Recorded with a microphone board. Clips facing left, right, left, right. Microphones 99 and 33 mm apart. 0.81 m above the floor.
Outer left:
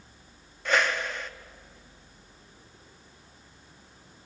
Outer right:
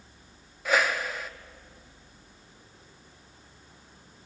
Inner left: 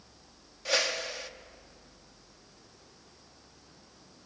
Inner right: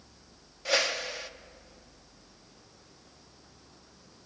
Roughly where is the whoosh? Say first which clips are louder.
Even, inner right 1 dB; centre.